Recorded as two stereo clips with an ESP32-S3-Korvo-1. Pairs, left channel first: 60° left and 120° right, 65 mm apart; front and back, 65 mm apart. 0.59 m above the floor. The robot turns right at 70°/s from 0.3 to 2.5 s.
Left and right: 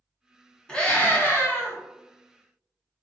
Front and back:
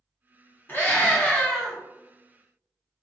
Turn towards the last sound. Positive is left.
turn(degrees=125)